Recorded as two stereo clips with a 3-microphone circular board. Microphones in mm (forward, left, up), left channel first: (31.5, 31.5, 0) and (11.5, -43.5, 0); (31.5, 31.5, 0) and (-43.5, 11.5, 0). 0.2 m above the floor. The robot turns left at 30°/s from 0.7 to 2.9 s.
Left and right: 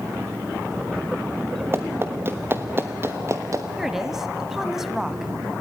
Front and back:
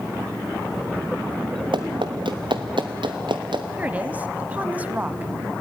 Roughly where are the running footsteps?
Behind.